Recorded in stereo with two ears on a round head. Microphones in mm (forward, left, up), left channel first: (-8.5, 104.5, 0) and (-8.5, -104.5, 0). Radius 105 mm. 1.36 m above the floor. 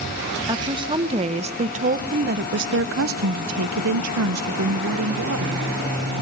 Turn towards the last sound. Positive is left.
turn(degrees=-45)  # may be behind; listen again after turning